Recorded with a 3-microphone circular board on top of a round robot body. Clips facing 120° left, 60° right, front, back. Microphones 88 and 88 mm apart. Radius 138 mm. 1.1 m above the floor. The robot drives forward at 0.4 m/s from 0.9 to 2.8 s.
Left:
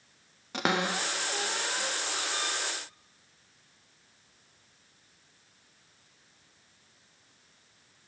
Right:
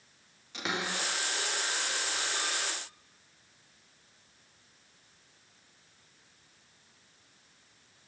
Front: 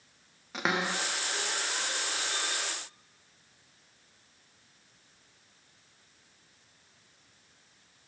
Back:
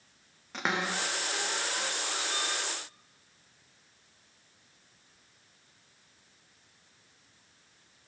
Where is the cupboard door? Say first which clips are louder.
Left 6 dB, front 1 dB; 85° left, 0.6 m; by 2.6 s 140° left, 0.9 m.